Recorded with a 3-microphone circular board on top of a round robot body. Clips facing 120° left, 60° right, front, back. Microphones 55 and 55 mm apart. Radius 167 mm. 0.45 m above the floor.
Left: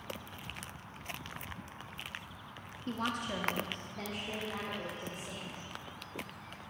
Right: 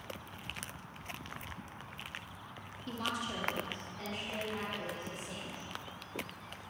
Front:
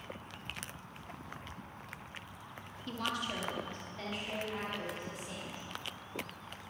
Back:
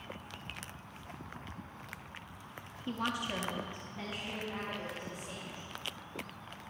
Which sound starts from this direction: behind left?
A woman speaking, at 2.9 s.